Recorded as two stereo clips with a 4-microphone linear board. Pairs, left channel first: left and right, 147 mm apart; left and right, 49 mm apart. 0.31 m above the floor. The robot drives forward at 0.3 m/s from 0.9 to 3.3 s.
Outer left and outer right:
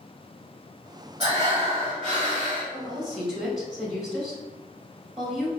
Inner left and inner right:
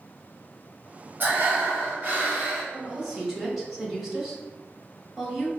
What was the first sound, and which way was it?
Breathing, 40° right (ahead or behind).